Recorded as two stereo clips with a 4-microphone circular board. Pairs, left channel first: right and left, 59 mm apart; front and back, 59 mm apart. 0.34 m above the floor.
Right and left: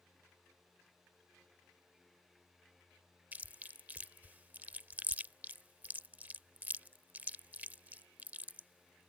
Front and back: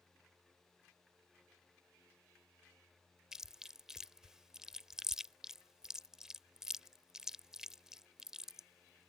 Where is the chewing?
110° left.